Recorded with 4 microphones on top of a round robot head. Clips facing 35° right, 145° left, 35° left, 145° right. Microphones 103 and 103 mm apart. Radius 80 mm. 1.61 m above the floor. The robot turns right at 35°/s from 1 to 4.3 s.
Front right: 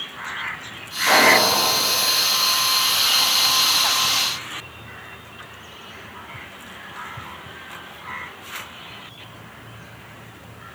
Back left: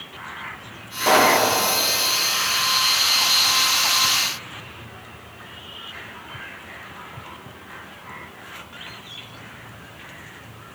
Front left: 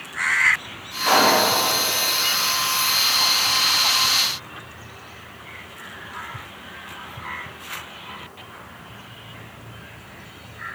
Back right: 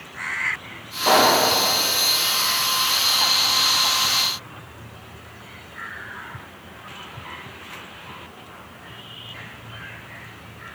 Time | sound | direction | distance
1.0 | a pop | 160° left | 3.5 m